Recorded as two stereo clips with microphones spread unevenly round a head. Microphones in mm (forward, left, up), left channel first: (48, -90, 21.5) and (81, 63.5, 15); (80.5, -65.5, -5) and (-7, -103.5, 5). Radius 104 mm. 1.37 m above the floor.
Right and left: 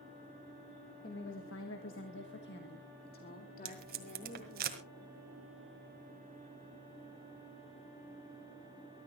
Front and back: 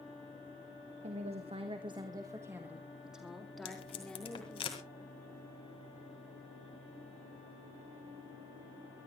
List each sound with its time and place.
1.0 s a woman speaking: 155° right, 1.7 m; by 4.7 s 55° right, 4 m
3.6 s tape being pulled: 70° left, 1.9 m